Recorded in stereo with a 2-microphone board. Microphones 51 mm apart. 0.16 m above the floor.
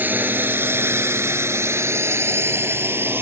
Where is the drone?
40° right (ahead or behind); by 3.2 s 45° right (ahead or behind).